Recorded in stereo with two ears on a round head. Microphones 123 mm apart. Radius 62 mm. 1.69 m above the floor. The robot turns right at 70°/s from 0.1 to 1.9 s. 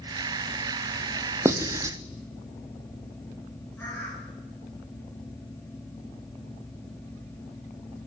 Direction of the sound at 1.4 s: 20° right (ahead or behind).